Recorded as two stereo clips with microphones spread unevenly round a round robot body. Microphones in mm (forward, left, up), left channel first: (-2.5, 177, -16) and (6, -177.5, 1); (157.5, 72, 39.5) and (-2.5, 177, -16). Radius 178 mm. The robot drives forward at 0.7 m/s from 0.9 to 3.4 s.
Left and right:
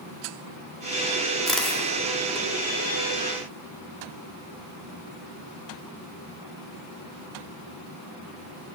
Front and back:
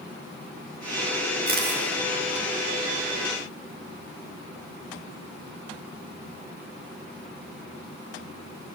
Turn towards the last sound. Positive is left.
turn(degrees=180)